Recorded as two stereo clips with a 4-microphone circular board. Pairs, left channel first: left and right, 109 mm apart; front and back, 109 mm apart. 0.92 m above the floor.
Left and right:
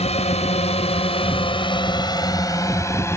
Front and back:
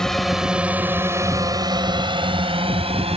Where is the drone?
85° left; by 3.2 s 155° left.